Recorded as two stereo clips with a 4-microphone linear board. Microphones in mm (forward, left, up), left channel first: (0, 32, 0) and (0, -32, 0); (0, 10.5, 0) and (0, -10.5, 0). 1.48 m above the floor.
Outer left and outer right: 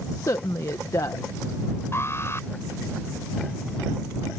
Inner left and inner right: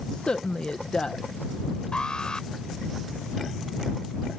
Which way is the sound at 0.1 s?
60° left (ahead or behind).